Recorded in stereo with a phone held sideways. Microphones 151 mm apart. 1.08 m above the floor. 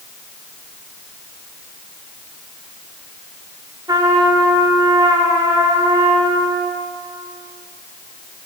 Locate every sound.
3.9 s a trumpet: 25° right (ahead or behind), 1.0 m